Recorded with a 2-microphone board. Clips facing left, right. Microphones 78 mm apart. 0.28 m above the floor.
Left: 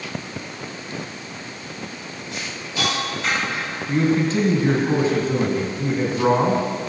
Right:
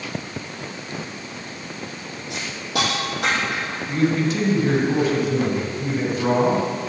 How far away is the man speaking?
About 2.5 m.